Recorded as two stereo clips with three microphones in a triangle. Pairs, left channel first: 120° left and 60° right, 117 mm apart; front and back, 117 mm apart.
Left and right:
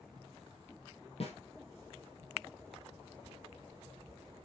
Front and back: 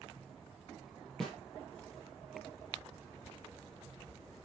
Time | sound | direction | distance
1.2 | a snare drum | 85° left | 3 m